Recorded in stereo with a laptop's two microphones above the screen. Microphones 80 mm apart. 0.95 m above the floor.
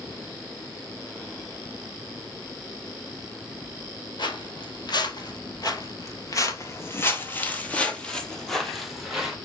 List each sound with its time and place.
4.2 s footsteps: 60° left (ahead or behind), 1.9 m; by 9.4 s 5° right (ahead or behind), 1.9 m